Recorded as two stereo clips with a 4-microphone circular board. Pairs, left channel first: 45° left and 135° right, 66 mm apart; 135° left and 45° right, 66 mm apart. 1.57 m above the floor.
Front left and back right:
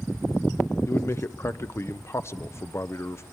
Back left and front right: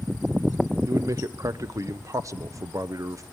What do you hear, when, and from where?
0.9 s a man speaking: 5° right, 0.9 m